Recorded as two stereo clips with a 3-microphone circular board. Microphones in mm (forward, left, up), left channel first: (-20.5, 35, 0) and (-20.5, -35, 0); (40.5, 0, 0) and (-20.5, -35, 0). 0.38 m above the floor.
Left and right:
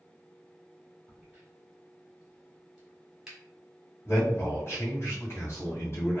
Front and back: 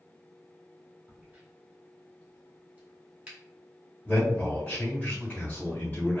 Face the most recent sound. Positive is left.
turn(degrees=85)